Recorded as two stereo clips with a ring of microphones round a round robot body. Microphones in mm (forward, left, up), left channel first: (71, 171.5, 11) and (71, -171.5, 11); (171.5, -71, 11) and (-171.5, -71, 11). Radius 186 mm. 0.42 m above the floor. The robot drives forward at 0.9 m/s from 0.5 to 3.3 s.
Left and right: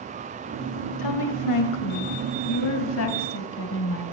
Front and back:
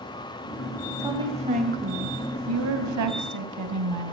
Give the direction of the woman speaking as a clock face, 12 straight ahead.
9 o'clock.